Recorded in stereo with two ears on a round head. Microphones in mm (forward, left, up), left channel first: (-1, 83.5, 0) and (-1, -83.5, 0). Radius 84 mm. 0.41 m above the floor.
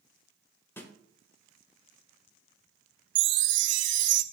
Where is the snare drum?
10° left (ahead or behind), 1.4 m.